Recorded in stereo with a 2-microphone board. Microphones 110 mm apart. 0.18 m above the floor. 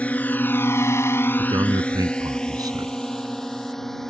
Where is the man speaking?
40° right (ahead or behind).